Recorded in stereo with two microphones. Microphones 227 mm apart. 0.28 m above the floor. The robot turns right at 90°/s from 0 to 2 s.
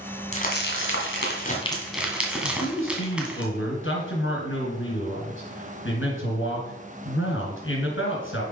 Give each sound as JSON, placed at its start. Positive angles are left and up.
{"t": 0.3, "sound": "crumpling", "side_deg": 30, "distance_m": 1.9}
{"t": 2.4, "sound": "a man speaking", "side_deg": 60, "distance_m": 3.0}